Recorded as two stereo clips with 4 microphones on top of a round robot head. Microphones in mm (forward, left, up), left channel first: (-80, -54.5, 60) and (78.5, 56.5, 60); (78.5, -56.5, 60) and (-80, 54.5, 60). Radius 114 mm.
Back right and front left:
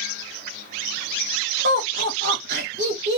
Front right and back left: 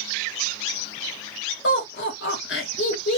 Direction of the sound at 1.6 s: Straight ahead.